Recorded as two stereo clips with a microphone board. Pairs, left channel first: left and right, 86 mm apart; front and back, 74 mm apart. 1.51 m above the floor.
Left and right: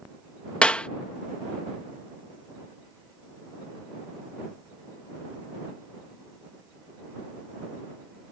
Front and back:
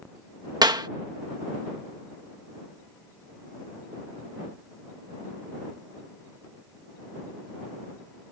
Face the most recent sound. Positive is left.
turn(degrees=165)